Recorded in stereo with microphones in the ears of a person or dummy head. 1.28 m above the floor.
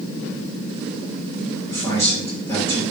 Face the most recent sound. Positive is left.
turn(degrees=10)  # may be behind; listen again after turning